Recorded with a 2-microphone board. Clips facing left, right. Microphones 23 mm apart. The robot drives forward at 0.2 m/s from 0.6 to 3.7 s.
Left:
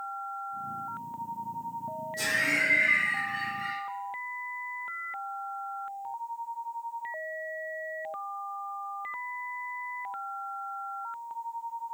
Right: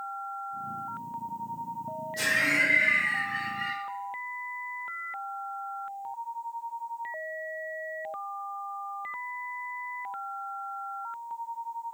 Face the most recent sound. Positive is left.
turn(degrees=-40)  # may be behind; listen again after turning